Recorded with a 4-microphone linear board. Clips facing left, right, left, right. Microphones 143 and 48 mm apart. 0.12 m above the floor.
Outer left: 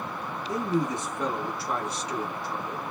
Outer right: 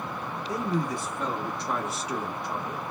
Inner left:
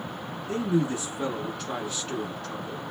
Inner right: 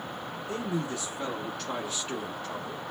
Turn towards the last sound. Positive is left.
turn(degrees=-25)  # may be behind; listen again after turning